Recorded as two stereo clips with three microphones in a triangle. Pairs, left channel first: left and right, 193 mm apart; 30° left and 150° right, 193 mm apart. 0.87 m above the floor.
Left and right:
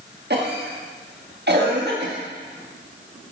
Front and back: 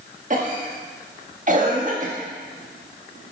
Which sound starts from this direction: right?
A cough, at 0.3 s.